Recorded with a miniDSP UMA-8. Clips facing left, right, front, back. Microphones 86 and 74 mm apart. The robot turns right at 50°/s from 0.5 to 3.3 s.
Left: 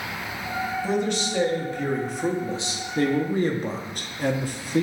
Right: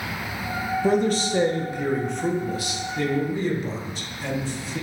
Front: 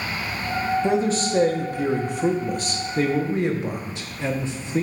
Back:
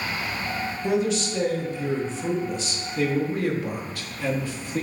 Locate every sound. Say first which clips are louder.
0.8 s a man speaking: right 6 dB, front 2 dB; 60° right, 0.9 m; by 4.8 s 65° left, 0.9 m